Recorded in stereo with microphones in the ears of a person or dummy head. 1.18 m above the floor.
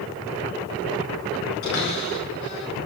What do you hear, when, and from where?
1.6 s a cupboard door: 75° left (ahead or behind), 6 m